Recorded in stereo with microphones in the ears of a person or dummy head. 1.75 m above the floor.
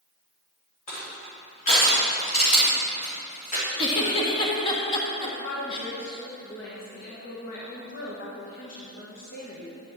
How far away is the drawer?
I don't hear a drawer.